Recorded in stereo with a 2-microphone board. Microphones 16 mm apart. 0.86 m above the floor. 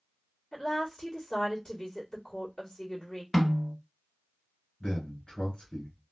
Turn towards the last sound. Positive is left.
turn(degrees=65)  # may be behind; listen again after turning